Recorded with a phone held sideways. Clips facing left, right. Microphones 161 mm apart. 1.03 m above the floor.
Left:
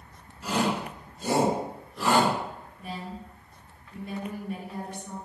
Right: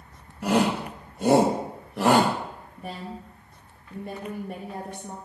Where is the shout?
60° right (ahead or behind), 1.1 m.